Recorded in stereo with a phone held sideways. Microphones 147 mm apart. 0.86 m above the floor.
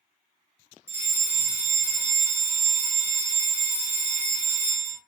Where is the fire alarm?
15° right (ahead or behind), 1.6 m.